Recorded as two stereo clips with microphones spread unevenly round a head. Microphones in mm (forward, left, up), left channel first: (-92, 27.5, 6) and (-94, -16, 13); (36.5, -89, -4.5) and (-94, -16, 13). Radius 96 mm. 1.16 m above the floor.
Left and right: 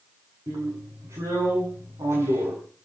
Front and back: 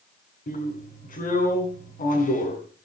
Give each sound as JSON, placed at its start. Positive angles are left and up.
{"t": 0.5, "sound": "a drill", "azimuth_deg": -60, "distance_m": 7.0}